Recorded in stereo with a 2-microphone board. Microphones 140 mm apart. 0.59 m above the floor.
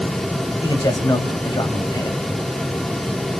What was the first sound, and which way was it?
A man speaking, 30° left (ahead or behind).